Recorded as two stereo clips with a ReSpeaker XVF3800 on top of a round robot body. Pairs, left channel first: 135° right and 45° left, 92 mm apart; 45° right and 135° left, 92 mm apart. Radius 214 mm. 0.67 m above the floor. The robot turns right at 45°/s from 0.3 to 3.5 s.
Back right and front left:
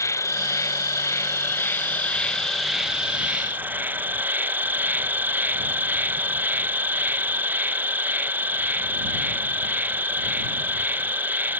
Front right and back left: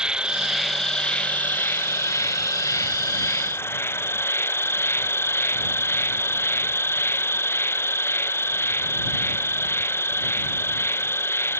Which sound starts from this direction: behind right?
An insect, at 0.0 s.